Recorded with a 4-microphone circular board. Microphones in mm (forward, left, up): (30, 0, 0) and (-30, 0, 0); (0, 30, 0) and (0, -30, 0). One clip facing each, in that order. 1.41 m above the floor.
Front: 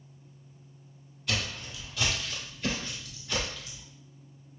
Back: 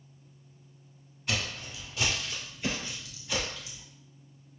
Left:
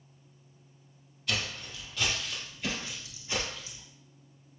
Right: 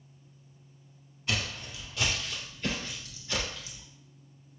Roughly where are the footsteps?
Behind right.